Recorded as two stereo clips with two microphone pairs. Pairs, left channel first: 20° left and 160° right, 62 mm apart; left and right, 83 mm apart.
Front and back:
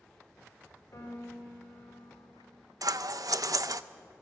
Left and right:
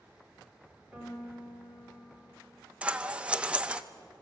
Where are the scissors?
165° right, 0.5 m.